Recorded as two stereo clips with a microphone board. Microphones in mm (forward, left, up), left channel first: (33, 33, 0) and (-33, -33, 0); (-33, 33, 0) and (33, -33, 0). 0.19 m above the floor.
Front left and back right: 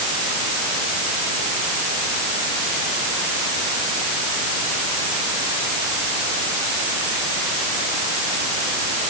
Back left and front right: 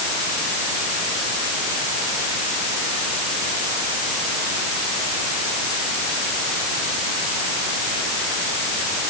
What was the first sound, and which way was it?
Only background noise.